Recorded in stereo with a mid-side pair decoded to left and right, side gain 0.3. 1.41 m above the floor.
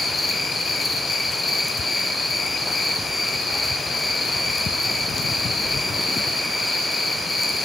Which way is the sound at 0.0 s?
70° left.